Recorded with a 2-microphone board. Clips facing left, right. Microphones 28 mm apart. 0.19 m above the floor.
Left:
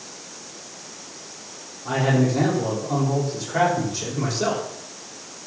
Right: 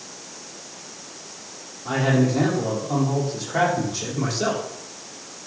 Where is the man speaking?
15° right (ahead or behind), 5.5 m.